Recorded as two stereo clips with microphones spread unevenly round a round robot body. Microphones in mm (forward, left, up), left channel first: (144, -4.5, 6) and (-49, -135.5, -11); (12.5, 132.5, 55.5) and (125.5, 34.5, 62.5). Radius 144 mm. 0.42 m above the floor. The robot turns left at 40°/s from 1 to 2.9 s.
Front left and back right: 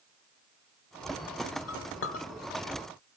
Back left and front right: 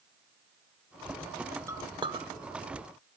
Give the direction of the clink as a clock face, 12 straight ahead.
11 o'clock.